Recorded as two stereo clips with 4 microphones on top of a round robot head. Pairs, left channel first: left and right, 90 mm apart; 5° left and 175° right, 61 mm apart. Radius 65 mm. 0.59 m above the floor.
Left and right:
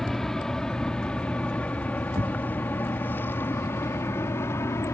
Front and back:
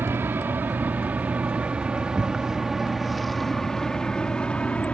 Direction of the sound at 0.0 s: 175° left.